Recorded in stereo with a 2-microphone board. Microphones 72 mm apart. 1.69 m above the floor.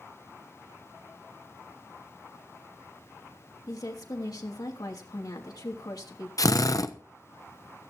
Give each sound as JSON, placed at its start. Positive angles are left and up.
{"t": 3.7, "sound": "a woman speaking", "side_deg": 65, "distance_m": 3.0}
{"t": 6.4, "sound": "a drill", "side_deg": 55, "distance_m": 0.9}